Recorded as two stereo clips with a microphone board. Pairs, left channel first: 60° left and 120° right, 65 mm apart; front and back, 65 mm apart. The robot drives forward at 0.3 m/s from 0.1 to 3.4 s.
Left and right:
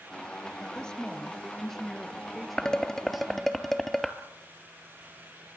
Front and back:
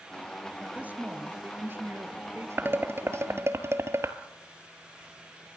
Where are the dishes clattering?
135° left, 1.1 m; by 4.2 s 145° left, 1.3 m.